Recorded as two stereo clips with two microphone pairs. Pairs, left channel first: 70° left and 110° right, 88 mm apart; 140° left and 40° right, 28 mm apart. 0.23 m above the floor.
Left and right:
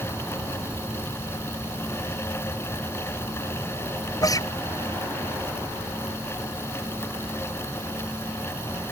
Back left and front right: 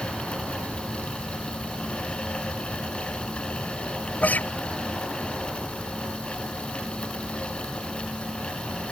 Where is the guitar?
120° left.